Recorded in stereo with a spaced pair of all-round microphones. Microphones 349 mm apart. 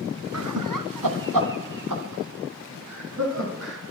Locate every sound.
0.3 s laughter: 50° right (ahead or behind), 1.2 m